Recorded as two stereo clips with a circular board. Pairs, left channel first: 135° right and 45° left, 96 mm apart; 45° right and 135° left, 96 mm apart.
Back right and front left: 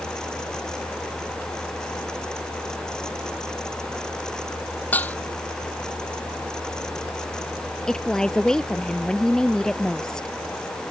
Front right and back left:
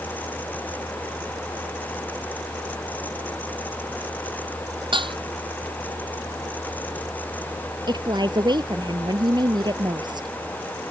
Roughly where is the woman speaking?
Behind left.